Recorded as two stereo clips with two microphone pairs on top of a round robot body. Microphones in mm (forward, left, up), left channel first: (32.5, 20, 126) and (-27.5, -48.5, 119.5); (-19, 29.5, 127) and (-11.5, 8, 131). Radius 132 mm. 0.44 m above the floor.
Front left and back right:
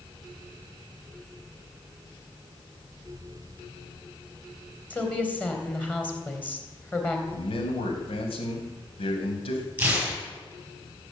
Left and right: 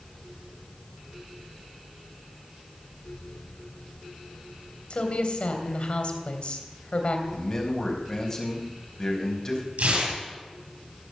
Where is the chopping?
I don't hear chopping.